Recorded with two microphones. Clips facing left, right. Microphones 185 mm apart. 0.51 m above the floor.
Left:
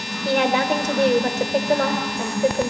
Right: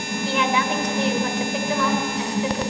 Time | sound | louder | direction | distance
0.2 | a woman speaking | left 4 dB | 45° left (ahead or behind) | 1.9 m